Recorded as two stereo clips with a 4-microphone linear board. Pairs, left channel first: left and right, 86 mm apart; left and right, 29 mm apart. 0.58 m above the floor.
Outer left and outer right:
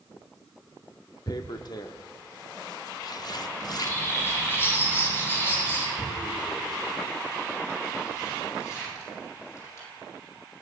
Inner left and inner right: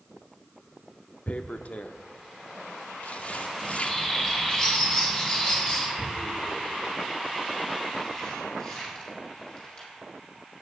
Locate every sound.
1.3 s tearing paper: 55° left (ahead or behind), 0.6 m
3.6 s a bird: 30° left (ahead or behind), 3 m
6.0 s tearing paper: 35° left (ahead or behind), 6 m